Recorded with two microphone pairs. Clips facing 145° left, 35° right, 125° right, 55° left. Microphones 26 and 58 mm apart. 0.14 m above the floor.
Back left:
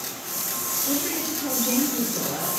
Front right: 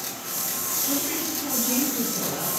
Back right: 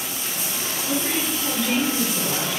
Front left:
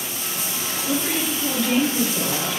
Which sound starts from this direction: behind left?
A woman speaking, at 0.8 s.